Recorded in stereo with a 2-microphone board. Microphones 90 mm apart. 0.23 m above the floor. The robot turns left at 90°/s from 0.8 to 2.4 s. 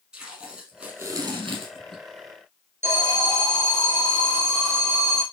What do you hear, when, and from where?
0.1 s tape being pulled: 10° right, 4 m; by 2.0 s 120° right, 4 m
2.8 s an alarm: 35° right (ahead or behind), 5 m